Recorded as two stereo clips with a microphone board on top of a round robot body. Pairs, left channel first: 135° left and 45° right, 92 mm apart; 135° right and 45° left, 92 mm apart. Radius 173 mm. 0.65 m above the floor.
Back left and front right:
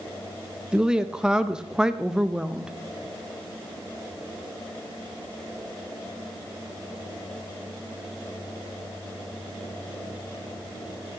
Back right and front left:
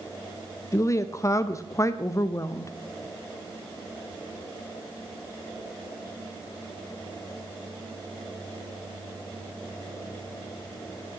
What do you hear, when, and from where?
0.7 s a woman speaking: 120° right, 0.6 m